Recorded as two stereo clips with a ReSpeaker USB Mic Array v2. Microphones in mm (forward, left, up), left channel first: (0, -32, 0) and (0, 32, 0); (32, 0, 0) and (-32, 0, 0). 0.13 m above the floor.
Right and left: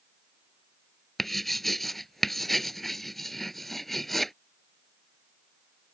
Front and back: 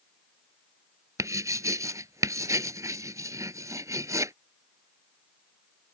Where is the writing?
175° right.